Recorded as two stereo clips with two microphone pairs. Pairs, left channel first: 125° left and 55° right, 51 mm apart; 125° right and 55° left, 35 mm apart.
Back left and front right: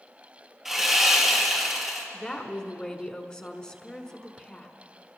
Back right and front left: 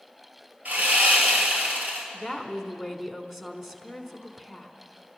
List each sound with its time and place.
0.7 s sawing: 30° left, 2.5 m
2.1 s a woman speaking: 125° left, 1.1 m